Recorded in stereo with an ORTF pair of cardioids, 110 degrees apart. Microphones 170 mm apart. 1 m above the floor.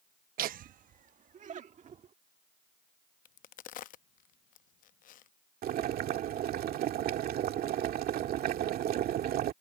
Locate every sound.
0.4 s laughter: 60° right; by 2.1 s 45° right
3.2 s a crack: 55° left
5.6 s boiling: 60° right